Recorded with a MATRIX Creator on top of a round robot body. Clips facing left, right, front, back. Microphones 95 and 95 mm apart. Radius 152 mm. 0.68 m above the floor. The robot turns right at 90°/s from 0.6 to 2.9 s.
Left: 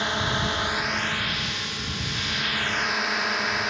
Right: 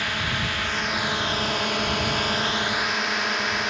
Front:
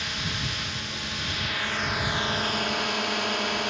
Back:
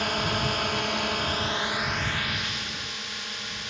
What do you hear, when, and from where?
0.0 s a drone: 155° left; by 3.7 s straight ahead